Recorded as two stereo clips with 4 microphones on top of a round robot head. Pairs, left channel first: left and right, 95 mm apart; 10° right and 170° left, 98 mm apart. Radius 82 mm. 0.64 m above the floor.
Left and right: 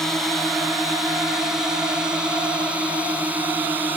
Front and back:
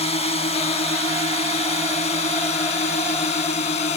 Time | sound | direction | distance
0.0 | a drone | straight ahead | ?